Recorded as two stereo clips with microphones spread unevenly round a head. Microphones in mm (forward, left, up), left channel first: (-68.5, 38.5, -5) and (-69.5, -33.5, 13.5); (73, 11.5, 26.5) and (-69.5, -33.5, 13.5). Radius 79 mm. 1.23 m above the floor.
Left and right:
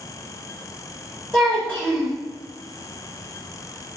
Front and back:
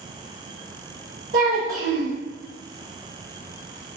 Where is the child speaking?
160° left, 1.6 m.